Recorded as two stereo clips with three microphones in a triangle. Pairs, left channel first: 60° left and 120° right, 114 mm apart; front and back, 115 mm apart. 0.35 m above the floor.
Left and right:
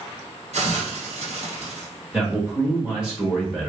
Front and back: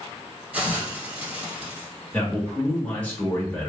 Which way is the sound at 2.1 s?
50° right.